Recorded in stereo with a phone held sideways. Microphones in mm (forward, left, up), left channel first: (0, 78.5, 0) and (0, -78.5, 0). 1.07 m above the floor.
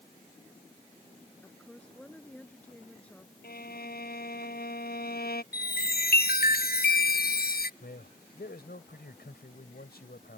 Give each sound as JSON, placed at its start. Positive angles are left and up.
{"t": 1.4, "sound": "a woman speaking", "side_deg": 10}
{"t": 3.4, "sound": "a violin", "side_deg": 75}
{"t": 5.5, "sound": "a chime", "side_deg": 70}
{"t": 7.8, "sound": "a man speaking", "side_deg": 80}